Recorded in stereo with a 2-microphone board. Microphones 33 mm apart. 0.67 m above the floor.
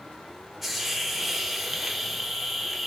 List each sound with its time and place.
0.6 s a hiss: 5° right (ahead or behind), 0.5 m